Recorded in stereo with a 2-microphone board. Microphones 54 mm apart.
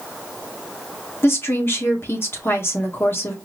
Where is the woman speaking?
45° left (ahead or behind), 1.4 m.